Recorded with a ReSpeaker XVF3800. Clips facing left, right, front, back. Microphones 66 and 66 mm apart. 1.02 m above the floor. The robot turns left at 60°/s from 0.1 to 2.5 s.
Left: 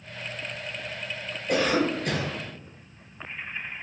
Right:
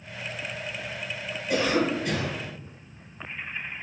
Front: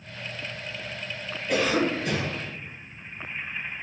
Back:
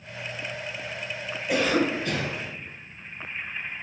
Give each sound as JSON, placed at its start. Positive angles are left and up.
{"t": 1.5, "sound": "a cough", "azimuth_deg": 105, "distance_m": 0.9}